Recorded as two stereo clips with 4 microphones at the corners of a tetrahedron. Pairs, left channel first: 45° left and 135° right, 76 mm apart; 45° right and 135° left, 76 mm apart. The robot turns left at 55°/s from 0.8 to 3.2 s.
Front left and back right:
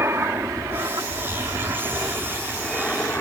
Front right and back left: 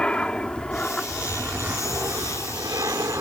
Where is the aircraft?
115° right; by 3.2 s 110° left.